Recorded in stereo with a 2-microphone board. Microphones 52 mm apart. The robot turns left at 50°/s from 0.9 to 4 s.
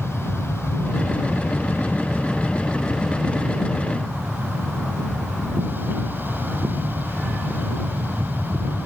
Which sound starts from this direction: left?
An aircraft, at 0.0 s.